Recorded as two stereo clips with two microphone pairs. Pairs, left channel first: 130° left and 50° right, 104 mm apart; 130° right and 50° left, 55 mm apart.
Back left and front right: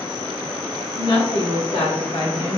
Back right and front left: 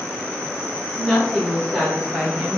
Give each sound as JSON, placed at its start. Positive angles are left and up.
{"t": 0.9, "sound": "a woman speaking", "azimuth_deg": 135, "distance_m": 1.9}